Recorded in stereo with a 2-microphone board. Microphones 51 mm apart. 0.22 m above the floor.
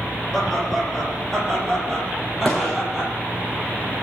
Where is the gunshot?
Centre (ahead or behind), 4.5 m.